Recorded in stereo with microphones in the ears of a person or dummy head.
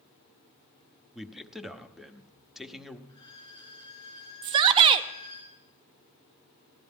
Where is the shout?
30° right (ahead or behind), 0.7 m.